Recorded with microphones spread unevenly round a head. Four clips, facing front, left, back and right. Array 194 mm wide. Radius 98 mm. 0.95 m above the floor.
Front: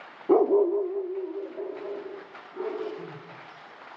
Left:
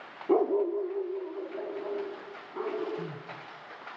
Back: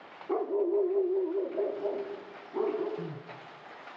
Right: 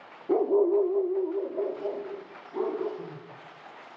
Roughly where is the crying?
Behind left.